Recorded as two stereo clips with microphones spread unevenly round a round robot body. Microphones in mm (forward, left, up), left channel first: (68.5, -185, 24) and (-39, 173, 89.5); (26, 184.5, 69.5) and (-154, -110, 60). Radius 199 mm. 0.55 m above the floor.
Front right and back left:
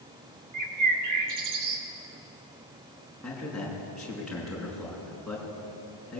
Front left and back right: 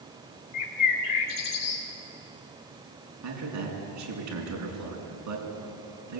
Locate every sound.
0.5 s a bird: 65° left, 2.5 m
3.2 s a man speaking: 160° right, 6 m